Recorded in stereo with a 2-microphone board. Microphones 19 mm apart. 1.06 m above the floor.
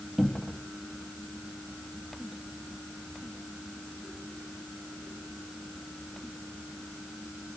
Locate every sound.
0.2 s a cupboard door: 10° left (ahead or behind), 1.4 m